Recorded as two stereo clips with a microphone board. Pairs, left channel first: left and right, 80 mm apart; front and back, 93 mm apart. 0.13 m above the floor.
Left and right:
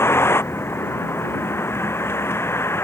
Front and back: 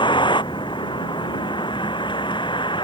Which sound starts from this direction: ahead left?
A vehicle, at 0.0 s.